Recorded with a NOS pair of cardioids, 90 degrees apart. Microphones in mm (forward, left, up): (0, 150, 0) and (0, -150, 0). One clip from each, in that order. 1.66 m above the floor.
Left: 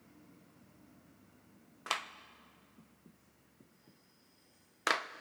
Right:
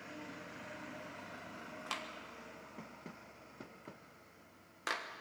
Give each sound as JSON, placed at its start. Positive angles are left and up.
{"t": 1.9, "sound": "a clap", "azimuth_deg": 45, "distance_m": 1.3}